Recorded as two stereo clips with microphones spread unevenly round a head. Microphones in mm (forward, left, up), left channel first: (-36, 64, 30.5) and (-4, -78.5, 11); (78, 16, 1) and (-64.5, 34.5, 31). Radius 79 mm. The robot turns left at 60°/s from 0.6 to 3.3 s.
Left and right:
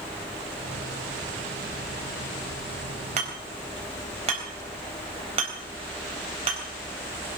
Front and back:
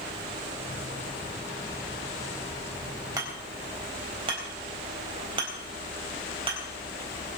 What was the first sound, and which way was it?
Hammering, 120° right.